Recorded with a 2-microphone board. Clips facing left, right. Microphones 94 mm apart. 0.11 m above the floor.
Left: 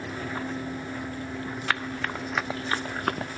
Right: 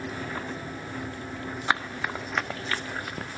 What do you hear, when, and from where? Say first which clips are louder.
1.7 s running footsteps: right 2 dB; 20° right (ahead or behind), 1.6 m; by 3.4 s 85° left, 0.9 m